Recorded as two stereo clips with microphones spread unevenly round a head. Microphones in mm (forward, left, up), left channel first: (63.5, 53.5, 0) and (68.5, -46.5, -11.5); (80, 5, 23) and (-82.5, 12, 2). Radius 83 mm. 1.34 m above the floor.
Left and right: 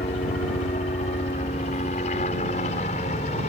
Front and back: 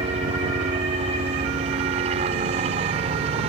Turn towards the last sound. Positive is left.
turn(degrees=125)